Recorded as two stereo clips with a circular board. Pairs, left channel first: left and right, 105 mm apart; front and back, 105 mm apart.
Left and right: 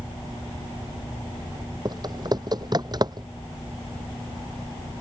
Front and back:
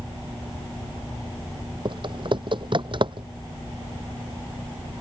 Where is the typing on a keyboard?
140° right.